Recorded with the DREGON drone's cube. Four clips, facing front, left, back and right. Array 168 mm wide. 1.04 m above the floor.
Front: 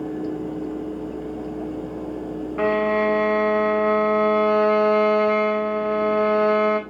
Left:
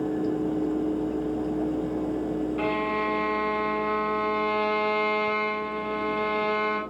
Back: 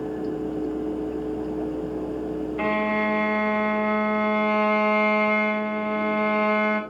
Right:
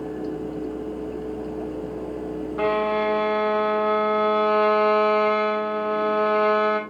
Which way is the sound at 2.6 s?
35° right.